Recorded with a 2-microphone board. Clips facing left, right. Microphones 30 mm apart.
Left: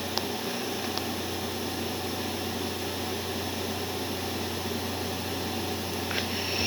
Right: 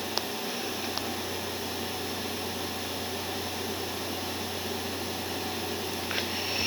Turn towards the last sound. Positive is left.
No sound to turn to.